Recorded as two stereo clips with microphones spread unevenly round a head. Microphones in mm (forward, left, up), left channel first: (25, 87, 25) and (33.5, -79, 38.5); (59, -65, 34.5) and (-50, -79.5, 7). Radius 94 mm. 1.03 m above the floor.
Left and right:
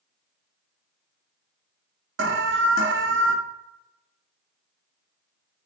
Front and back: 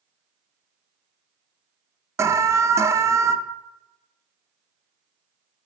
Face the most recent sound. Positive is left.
turn(degrees=-110)